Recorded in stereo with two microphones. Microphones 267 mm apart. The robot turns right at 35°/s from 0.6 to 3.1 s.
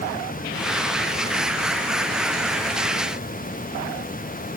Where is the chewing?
I don't hear chewing.